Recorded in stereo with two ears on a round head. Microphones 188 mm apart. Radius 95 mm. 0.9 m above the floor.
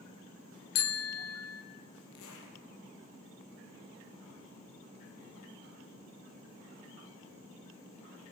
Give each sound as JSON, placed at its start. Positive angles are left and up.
{"t": 0.8, "sound": "a bicycle bell", "side_deg": 85, "distance_m": 2.5}
{"t": 2.1, "sound": "a zipper", "side_deg": 80, "distance_m": 4.5}